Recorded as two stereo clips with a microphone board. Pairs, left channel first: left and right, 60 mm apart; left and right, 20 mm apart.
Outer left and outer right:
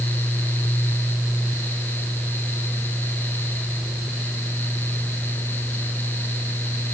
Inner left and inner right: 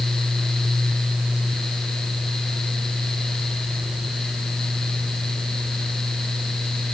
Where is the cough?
No cough in this recording.